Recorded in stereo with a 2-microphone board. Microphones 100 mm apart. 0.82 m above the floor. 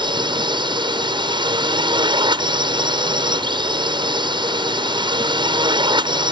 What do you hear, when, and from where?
0.0 s a drone: 50° right (ahead or behind)